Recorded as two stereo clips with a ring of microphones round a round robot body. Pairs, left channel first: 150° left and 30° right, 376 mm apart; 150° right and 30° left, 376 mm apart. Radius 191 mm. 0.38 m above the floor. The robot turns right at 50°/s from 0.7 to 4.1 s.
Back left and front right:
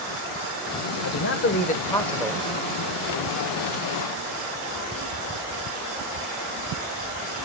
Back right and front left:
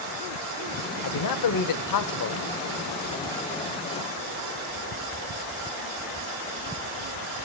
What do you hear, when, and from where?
1.0 s a man speaking: 175° right, 1.2 m; by 2.5 s 105° right, 1.2 m